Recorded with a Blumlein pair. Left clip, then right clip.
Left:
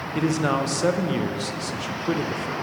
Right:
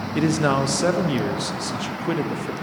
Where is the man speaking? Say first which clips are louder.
Right 3 dB; 10° right, 0.5 m.